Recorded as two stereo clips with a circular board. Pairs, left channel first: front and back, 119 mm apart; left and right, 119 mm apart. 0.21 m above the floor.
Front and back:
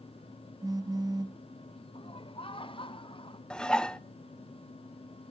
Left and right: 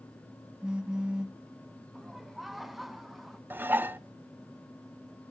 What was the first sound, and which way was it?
A phone buzzing, 165° right.